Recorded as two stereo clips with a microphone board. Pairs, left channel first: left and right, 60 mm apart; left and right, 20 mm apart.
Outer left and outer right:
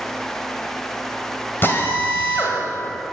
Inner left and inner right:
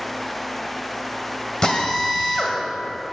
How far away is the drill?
About 1.7 m.